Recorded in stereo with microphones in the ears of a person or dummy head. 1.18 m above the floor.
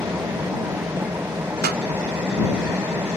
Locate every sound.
0.0 s an engine running: 10° right (ahead or behind)
1.6 s a pop: 60° right (ahead or behind)